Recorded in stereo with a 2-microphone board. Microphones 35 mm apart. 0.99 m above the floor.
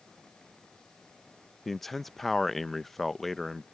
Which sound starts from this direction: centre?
A man speaking, at 1.6 s.